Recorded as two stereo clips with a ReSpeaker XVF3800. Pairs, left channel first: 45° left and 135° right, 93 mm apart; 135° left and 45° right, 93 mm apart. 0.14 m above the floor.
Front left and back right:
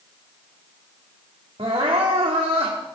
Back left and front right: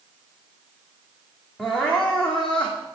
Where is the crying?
145° right, 1.9 m.